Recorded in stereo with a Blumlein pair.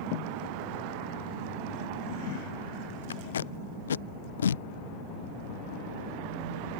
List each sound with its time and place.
3.1 s tape being pulled: 65° left